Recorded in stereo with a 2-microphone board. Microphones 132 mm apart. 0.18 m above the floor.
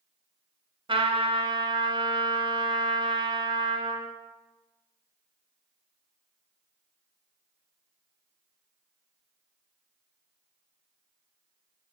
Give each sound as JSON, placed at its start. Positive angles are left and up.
{"t": 0.9, "sound": "a trumpet", "side_deg": -45, "distance_m": 1.1}